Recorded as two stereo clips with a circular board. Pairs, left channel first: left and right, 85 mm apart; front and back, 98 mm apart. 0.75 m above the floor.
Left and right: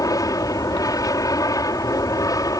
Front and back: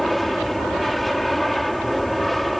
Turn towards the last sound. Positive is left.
turn(degrees=90)